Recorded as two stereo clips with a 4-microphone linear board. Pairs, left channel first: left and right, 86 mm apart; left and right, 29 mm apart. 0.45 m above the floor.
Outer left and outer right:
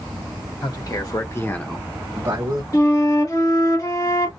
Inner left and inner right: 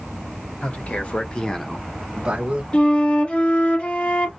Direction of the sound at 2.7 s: 45° left (ahead or behind).